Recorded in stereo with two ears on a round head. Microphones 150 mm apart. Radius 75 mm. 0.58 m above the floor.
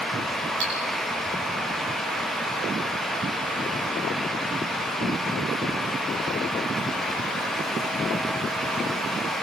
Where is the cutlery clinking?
70° right (ahead or behind), 7.5 m.